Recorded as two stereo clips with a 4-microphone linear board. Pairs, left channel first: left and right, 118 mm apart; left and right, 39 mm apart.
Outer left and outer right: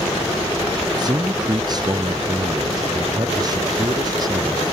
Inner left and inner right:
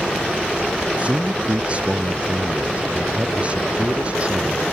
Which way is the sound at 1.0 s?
35° right (ahead or behind).